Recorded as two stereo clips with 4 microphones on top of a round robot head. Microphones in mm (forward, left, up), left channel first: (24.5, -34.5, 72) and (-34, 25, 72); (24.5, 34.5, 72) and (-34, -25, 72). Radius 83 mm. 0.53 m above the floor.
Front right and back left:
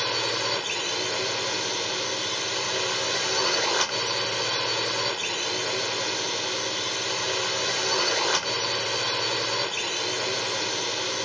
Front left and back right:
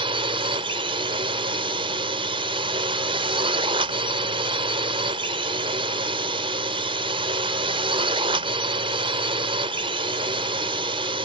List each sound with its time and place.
0.0 s a drone: 135° right